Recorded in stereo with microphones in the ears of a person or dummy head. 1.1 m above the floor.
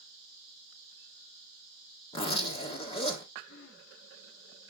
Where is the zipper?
25° left (ahead or behind), 1.7 m.